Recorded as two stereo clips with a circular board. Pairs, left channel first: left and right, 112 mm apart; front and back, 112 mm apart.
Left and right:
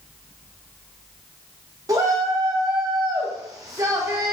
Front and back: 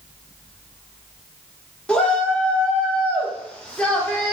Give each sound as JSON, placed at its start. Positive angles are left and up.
{"t": 1.9, "sound": "a shout", "azimuth_deg": -70, "distance_m": 0.9}